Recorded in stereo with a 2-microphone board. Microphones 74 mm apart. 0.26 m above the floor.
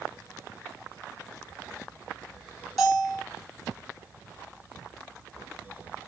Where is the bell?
5° left (ahead or behind), 1.5 m.